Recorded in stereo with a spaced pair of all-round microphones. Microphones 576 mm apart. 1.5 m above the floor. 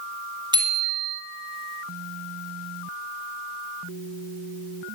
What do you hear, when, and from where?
0.5 s a bicycle bell: 10° right (ahead or behind), 4.5 m